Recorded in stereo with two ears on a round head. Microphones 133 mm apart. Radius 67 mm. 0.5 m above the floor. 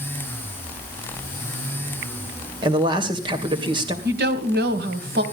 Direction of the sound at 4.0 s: 75° right (ahead or behind).